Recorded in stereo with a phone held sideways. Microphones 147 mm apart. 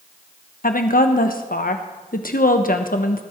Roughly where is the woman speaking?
Left.